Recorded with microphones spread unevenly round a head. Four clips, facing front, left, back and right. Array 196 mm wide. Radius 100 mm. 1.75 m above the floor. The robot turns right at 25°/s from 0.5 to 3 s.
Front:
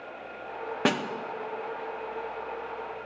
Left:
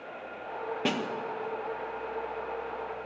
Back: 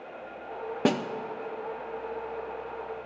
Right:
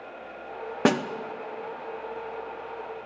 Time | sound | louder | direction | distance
0.8 | a snare drum | right 9 dB, back 1 dB | 95° right | 0.6 m